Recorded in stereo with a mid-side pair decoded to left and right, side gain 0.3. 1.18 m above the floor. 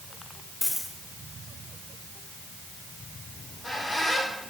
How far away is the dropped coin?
About 2 m.